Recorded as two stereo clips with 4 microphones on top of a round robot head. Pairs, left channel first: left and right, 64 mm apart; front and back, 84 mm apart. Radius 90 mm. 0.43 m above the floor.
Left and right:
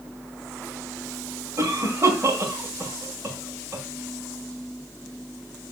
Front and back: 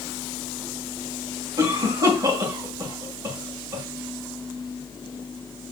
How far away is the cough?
About 3 m.